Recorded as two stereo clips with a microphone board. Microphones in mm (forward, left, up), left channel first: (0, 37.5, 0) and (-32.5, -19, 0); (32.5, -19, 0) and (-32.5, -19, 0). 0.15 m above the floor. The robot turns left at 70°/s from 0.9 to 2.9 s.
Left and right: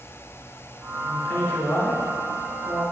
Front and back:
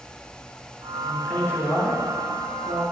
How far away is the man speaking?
About 1.9 m.